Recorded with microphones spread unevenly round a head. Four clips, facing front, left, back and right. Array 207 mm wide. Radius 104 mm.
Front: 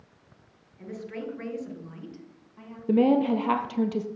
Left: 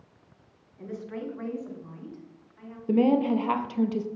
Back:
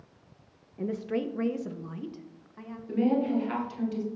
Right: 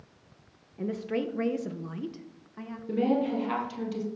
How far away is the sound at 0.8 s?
About 1.5 m.